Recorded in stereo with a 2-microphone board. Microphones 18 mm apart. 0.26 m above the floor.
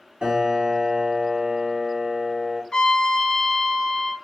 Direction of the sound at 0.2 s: 50° right (ahead or behind).